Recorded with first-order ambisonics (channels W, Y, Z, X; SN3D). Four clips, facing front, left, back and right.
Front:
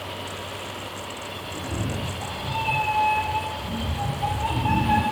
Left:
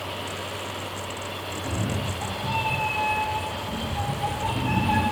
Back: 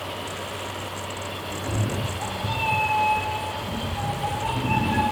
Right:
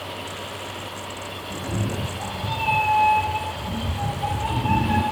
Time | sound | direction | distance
1.5 | a cat meowing | 145° right | 1.2 m